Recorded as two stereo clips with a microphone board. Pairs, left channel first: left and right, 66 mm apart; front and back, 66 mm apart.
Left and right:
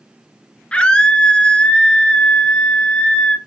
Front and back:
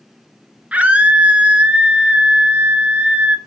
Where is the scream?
140° left, 1.1 m.